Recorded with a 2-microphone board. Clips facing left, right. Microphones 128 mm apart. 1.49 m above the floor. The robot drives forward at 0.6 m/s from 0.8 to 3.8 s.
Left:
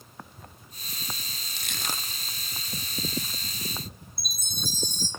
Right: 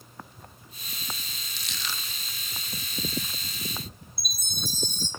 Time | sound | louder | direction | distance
1.6 | crushing | left 3 dB | 55° left (ahead or behind) | 0.6 m
4.2 | a chime | even | 60° right (ahead or behind) | 3 m